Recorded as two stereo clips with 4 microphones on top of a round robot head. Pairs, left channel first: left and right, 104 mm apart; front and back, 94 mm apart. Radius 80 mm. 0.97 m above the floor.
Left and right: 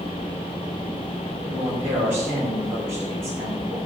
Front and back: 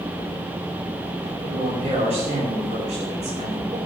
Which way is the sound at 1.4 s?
165° right.